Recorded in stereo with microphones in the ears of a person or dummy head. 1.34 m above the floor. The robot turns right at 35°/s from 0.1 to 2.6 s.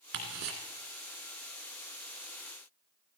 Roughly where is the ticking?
Right.